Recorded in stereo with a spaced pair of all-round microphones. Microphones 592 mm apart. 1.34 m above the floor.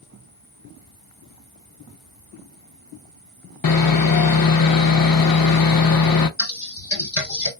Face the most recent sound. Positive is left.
turn(degrees=55)  # may be behind; listen again after turning